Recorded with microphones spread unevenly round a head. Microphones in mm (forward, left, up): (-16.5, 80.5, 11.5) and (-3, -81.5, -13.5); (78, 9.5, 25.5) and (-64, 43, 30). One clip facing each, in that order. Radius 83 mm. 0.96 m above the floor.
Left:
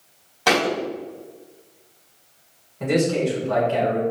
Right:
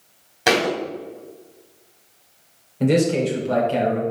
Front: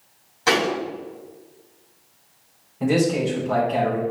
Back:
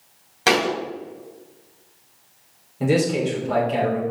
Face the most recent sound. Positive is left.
turn(degrees=-135)